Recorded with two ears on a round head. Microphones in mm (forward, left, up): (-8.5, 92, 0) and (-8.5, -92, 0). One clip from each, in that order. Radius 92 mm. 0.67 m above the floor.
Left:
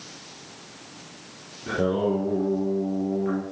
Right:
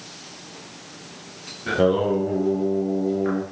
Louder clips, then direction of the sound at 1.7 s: Right 5 dB; 50° right (ahead or behind).